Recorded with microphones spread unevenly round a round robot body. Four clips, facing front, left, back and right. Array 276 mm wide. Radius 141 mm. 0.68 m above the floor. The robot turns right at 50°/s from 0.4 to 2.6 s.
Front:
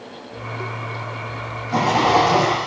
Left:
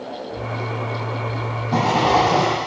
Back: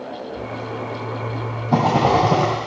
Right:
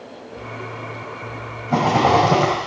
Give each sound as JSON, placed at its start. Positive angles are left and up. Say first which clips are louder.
{"t": 1.7, "sound": "a rattle", "louder": "right 2 dB, even", "azimuth_deg": -165, "distance_m": 2.0}